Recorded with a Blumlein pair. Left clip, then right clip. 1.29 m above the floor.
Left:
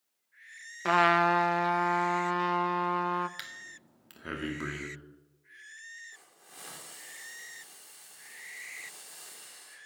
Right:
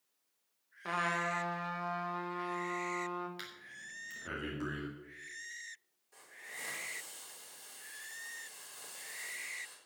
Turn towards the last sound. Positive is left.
turn(degrees=10)